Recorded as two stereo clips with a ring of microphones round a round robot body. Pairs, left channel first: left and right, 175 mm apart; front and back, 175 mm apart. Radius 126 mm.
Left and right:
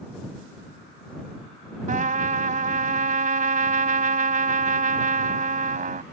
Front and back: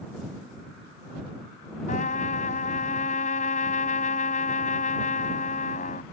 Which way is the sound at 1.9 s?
55° right.